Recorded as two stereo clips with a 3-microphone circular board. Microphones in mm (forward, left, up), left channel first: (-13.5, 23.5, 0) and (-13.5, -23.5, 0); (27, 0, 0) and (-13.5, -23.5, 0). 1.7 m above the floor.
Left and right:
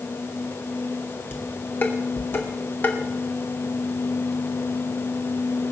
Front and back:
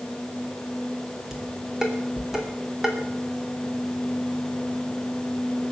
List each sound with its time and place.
1.3 s dishes clattering: 130° left, 2.5 m